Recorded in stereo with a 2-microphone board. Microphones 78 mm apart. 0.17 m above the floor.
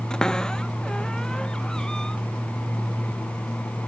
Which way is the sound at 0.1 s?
10° left (ahead or behind).